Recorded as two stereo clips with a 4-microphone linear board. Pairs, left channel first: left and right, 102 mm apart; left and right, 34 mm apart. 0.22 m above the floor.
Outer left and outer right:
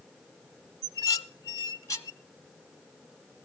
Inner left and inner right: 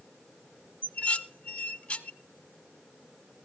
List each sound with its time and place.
0.8 s dishes clattering: 35° left (ahead or behind), 1.1 m